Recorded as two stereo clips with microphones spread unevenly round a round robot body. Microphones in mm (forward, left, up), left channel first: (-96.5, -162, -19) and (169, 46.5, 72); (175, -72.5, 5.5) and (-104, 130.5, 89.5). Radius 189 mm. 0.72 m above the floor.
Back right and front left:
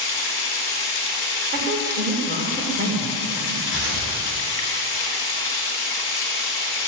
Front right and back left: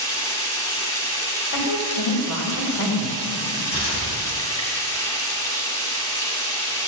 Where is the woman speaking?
30° right, 3.5 m.